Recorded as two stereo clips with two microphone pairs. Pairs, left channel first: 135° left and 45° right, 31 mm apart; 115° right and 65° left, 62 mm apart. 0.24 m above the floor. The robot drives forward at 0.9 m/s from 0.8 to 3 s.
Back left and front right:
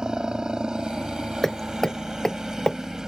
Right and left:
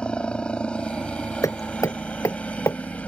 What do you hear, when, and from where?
0.0 s a helicopter: 65° right; by 3.1 s 90° right
1.4 s hammering: 140° right; by 2.8 s 160° right